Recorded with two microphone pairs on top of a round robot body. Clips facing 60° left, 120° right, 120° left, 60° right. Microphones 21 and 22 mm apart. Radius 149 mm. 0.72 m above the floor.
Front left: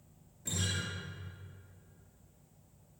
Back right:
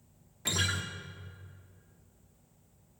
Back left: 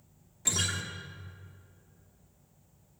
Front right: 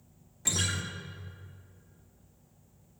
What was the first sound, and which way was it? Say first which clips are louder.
A guitar: back right 5 dB, even; 145° right.